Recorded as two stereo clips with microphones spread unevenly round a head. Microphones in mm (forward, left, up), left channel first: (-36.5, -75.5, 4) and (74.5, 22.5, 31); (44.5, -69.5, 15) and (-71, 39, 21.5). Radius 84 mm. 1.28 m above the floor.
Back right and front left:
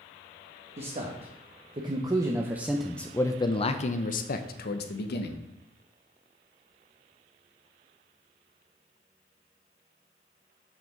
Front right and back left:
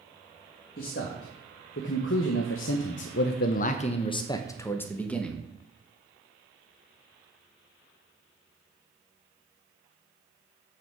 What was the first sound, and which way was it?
A man speaking, 5° right.